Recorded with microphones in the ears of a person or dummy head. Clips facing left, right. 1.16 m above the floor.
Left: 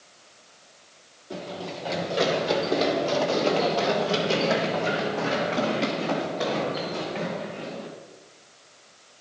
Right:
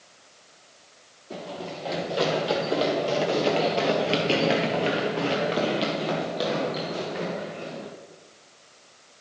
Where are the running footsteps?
Centre (ahead or behind), 2.5 m; by 7.9 s 30° right (ahead or behind), 3 m.